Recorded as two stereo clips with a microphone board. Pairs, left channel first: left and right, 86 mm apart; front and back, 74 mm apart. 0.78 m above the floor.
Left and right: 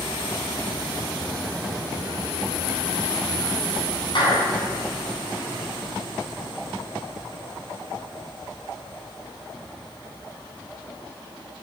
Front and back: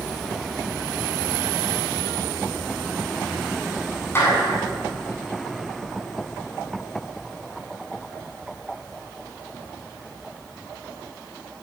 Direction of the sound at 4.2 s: 60° left.